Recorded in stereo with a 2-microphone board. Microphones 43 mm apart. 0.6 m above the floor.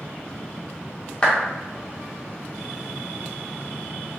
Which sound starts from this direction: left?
A clap, at 1.2 s.